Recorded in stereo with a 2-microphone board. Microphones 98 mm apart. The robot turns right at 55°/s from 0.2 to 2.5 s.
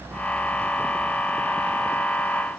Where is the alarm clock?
No alarm clock in this recording.